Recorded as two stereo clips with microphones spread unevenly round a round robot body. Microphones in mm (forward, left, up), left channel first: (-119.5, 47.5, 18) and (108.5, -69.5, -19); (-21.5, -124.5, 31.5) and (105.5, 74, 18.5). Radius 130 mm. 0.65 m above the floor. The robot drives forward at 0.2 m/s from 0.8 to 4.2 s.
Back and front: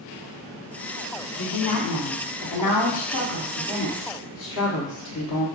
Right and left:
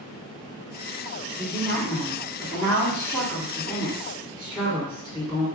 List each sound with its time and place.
1.4 s a woman speaking: 155° left, 1.0 m; by 5.5 s 165° left, 1.5 m